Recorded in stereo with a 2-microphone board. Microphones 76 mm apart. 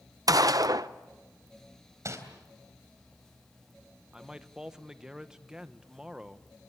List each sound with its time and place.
0.3 s a gunshot: 55° right (ahead or behind), 0.6 m
2.0 s crumpling: 45° right (ahead or behind), 3.5 m
4.1 s a man speaking: 10° right (ahead or behind), 0.9 m